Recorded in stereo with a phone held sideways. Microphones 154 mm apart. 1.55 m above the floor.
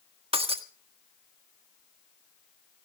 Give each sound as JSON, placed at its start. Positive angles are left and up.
{"t": 0.3, "sound": "breaking glass", "side_deg": -40, "distance_m": 1.5}